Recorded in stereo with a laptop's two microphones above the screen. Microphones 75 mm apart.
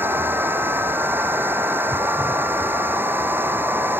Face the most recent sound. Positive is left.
turn(degrees=-25)  # may be behind; listen again after turning